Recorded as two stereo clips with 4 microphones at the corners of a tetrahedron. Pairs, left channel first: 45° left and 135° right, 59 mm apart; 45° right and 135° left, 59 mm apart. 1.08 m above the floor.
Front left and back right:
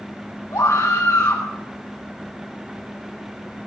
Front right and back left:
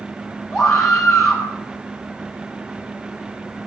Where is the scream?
40° left, 10 m.